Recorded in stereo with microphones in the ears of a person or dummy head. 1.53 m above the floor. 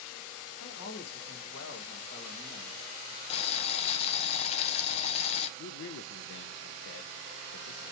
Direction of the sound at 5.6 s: 75° left (ahead or behind).